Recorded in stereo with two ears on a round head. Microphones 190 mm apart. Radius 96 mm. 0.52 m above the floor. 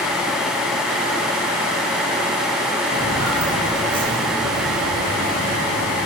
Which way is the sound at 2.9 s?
40° right (ahead or behind).